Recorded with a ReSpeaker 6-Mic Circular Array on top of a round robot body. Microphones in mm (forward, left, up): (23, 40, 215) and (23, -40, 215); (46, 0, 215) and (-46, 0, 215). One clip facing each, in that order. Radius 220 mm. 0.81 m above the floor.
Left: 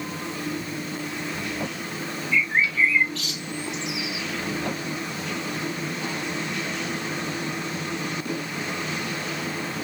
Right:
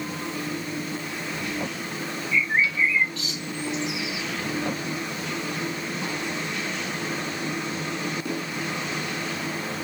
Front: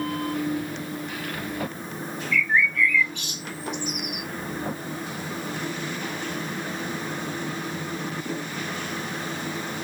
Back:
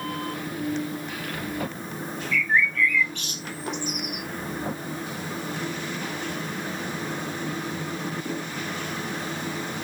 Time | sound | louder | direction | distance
2.3 | a bird | even, front 1 dB | 85° left | 2 m